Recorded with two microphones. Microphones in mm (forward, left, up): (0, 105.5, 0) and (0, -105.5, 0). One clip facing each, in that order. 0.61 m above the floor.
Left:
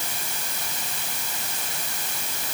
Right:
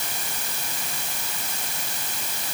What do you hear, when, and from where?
Only background noise.